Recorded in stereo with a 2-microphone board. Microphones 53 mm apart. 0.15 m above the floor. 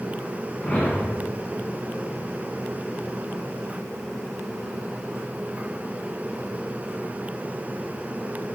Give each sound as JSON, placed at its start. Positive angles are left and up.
{"t": 0.6, "sound": "a whoosh", "side_deg": 25, "distance_m": 1.8}